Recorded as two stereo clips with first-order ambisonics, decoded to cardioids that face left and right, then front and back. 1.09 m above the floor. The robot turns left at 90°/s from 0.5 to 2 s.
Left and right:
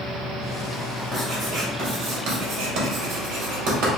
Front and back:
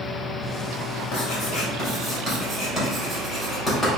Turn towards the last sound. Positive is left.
turn(degrees=-80)